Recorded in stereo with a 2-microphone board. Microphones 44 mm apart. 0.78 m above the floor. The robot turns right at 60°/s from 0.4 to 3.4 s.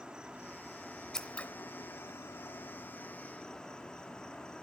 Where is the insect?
15° right, 1.1 m; by 4.6 s 165° left, 1.1 m.